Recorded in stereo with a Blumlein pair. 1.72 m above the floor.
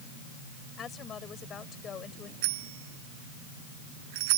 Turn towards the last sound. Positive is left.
turn(degrees=-45)